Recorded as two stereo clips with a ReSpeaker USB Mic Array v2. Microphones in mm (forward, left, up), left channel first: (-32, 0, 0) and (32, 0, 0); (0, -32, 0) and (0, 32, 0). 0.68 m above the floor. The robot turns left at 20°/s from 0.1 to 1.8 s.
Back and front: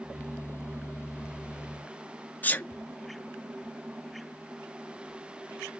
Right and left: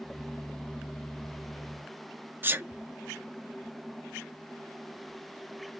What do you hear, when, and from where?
2.4 s a sneeze: 130° left, 0.8 m